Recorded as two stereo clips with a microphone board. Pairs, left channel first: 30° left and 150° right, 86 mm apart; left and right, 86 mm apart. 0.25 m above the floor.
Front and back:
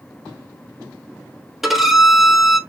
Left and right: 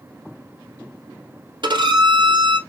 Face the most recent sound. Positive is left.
turn(degrees=-65)